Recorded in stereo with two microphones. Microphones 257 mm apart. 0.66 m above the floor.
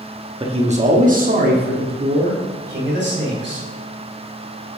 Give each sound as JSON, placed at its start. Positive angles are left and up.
{"t": 0.4, "sound": "a man speaking", "side_deg": -20, "distance_m": 0.8}